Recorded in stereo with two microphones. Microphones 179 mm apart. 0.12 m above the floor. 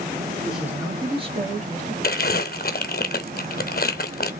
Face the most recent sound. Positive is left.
turn(degrees=60)  # may be behind; listen again after turning